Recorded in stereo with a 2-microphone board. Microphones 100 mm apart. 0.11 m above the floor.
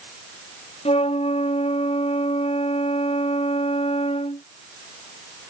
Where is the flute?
80° left.